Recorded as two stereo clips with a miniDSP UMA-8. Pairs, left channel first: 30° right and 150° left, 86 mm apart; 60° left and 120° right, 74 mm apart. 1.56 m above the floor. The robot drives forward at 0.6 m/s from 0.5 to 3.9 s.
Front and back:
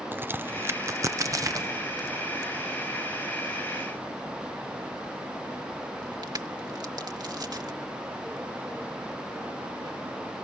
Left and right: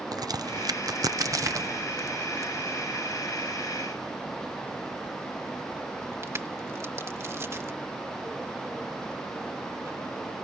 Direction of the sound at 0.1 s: 145° right.